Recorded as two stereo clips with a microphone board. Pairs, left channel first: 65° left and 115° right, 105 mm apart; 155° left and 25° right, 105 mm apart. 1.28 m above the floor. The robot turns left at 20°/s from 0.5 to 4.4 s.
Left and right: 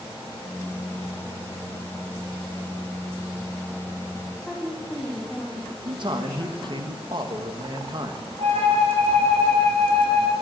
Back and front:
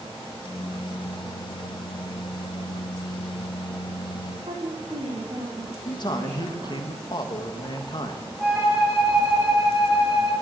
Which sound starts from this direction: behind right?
A man speaking, at 5.8 s.